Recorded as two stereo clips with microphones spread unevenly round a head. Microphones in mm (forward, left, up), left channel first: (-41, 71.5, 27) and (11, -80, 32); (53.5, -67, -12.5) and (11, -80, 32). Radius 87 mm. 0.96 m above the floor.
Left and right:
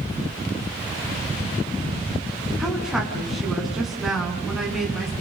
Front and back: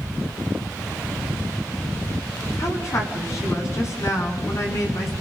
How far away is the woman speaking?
About 8.5 m.